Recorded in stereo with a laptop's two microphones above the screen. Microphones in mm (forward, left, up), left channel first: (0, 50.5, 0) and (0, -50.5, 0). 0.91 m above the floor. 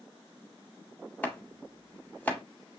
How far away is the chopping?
About 1.0 m.